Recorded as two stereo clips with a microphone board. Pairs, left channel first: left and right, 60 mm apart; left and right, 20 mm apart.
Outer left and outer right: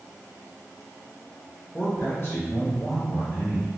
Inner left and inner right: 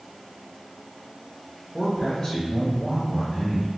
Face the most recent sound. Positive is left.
turn(degrees=60)  # may be behind; listen again after turning